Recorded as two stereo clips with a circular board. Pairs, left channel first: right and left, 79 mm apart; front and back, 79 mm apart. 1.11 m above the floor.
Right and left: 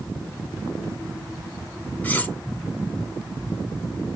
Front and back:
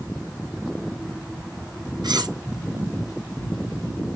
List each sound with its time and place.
2.0 s cutlery clinking: 155° right, 0.6 m